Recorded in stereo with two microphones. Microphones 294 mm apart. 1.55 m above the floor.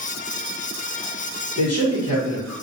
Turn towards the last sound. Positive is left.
turn(degrees=55)  # may be behind; listen again after turning